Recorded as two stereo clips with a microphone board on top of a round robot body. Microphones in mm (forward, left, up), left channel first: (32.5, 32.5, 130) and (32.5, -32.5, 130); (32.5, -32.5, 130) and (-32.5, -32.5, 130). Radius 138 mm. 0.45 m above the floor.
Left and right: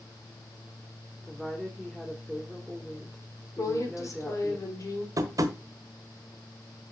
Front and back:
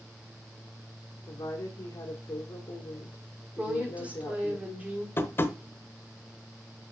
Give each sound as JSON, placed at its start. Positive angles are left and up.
{"t": 1.3, "sound": "a woman speaking", "azimuth_deg": 5, "distance_m": 1.6}
{"t": 3.6, "sound": "a woman speaking", "azimuth_deg": 115, "distance_m": 2.5}
{"t": 5.2, "sound": "tapping", "azimuth_deg": -55, "distance_m": 0.9}